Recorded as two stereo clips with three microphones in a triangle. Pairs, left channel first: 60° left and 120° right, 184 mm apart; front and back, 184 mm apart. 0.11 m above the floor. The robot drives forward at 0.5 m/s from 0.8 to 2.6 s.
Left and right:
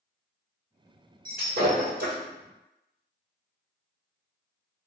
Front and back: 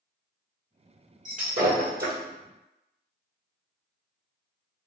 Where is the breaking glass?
140° right, 2.0 m; by 2.1 s 150° right, 2.5 m.